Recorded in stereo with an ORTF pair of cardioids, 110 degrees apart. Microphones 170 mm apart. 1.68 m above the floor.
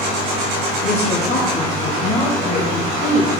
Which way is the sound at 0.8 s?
35° left.